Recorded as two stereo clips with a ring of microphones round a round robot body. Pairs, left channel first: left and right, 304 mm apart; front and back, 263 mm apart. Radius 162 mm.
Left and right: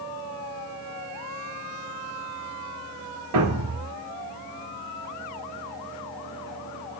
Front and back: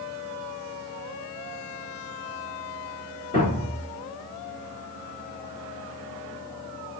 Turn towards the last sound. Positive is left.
turn(degrees=-70)